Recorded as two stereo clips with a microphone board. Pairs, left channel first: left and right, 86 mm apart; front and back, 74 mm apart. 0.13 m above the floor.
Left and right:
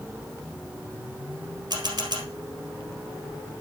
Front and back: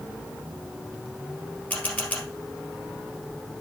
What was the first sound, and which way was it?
A camera shutter, 65° right.